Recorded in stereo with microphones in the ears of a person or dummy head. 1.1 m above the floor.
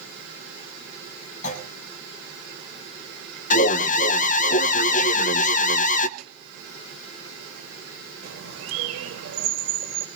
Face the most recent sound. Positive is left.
turn(degrees=-85)